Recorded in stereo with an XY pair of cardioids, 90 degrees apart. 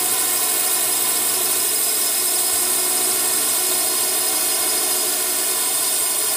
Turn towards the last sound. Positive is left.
turn(degrees=-10)